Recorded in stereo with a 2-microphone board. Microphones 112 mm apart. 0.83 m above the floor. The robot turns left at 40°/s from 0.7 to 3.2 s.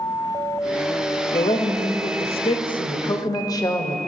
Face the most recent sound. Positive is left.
turn(degrees=40)